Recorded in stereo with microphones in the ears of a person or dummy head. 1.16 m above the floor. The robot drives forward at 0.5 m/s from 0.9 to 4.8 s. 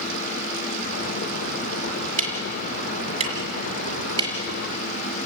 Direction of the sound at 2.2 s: 35° right (ahead or behind).